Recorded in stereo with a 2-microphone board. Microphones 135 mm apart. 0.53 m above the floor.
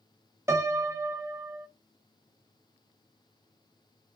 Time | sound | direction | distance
0.5 | a piano | 20° right (ahead or behind) | 0.6 m